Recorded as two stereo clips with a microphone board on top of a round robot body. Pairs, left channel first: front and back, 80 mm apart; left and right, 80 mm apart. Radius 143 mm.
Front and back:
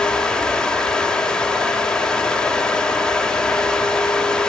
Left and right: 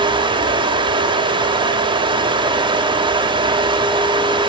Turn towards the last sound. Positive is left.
turn(degrees=-80)